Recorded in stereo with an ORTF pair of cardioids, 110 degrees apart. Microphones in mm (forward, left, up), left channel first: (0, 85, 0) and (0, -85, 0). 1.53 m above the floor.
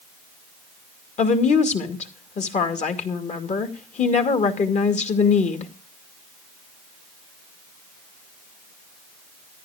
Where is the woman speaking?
45° left, 2.5 m.